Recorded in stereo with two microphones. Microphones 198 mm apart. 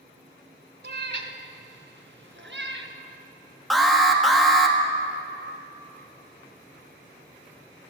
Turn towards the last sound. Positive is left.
turn(degrees=0)  # may be behind; listen again after turning